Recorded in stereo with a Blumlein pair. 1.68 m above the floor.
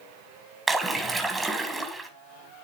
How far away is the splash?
About 1.6 m.